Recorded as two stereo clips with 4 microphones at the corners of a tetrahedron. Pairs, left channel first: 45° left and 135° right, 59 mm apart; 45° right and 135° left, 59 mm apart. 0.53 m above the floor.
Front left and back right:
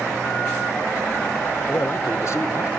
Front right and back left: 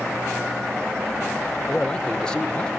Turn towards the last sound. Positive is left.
turn(degrees=25)